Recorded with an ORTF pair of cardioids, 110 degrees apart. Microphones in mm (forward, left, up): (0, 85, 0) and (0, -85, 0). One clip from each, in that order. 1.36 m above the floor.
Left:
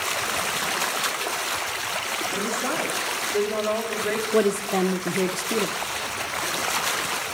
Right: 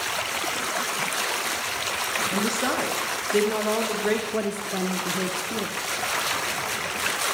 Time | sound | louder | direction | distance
2.3 | a woman speaking | right 1 dB | 40° right | 1.8 m
4.3 | a woman speaking | left 6 dB | 25° left | 0.6 m